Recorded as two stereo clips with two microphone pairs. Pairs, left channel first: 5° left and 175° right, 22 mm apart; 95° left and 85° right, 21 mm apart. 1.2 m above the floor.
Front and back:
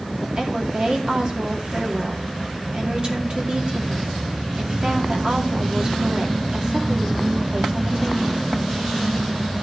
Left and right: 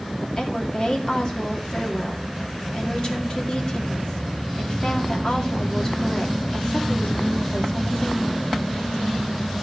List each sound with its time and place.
0.4 s a woman speaking: 140° left, 2.5 m